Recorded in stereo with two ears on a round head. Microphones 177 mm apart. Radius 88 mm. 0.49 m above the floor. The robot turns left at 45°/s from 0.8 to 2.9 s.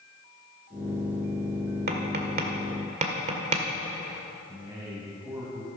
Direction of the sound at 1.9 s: 50° right (ahead or behind).